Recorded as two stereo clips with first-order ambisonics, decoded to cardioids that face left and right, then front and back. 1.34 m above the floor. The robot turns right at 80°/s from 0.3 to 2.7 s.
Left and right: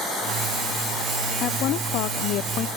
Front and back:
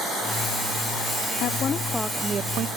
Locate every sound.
1.4 s a woman speaking: 35° left, 0.6 m; by 2.7 s 140° left, 0.6 m